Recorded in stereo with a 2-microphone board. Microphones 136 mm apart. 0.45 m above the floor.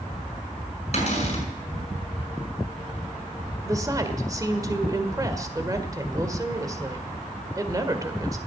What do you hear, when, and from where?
0.9 s a cupboard door: 50° left (ahead or behind), 6 m
3.6 s a woman speaking: 25° right (ahead or behind), 1.7 m